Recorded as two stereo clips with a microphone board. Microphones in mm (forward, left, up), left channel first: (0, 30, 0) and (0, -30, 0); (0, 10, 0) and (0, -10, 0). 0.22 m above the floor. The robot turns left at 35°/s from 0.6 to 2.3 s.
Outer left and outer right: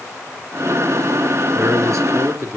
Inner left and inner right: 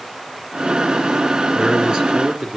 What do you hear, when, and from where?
1.6 s a man speaking: 50° right (ahead or behind), 2.5 m; by 2.6 s 65° right (ahead or behind), 2.5 m